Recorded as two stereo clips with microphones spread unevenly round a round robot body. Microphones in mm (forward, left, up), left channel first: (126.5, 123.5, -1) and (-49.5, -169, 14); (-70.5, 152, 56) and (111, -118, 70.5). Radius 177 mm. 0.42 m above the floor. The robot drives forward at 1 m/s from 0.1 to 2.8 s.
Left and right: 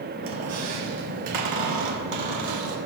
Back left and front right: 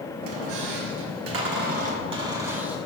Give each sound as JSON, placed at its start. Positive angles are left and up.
{"t": 0.2, "sound": "a squeak", "azimuth_deg": -65, "distance_m": 1.6}